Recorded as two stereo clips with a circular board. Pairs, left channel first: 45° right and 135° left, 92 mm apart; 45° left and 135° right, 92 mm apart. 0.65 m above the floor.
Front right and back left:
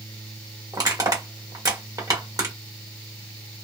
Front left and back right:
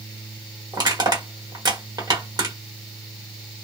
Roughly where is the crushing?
Behind.